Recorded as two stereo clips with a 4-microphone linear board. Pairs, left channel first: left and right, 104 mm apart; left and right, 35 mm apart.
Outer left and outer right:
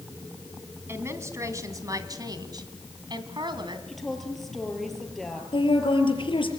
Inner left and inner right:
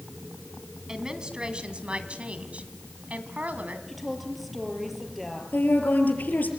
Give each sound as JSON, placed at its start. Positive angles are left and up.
{"t": 0.9, "sound": "a woman speaking", "side_deg": -25, "distance_m": 2.5}
{"t": 3.9, "sound": "a woman speaking", "side_deg": 0, "distance_m": 5.5}
{"t": 5.5, "sound": "a woman speaking", "side_deg": 55, "distance_m": 5.0}